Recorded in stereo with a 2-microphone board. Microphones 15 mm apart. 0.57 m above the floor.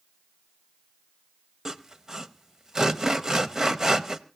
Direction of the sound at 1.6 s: 30° right (ahead or behind).